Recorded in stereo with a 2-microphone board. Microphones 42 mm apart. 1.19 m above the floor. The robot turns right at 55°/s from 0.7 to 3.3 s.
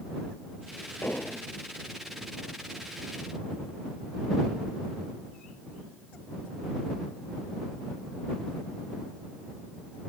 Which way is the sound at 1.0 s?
55° left (ahead or behind).